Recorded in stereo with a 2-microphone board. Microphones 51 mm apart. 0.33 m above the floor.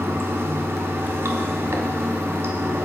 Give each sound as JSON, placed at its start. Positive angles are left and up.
{"t": 0.0, "sound": "running water", "side_deg": -60, "distance_m": 0.7}